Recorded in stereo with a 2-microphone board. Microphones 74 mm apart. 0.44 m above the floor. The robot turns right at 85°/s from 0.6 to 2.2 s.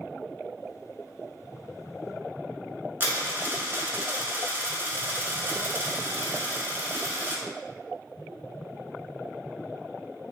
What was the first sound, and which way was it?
A dropped coin, 30° right (ahead or behind).